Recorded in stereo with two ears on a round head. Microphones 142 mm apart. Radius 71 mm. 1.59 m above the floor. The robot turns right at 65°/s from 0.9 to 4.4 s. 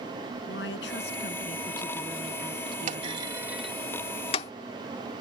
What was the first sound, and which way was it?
A woman speaking, 95° left.